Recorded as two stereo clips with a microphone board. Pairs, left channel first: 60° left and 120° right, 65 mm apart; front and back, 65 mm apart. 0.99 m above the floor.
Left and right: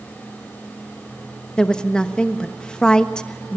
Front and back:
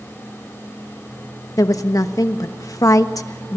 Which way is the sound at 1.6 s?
15° right.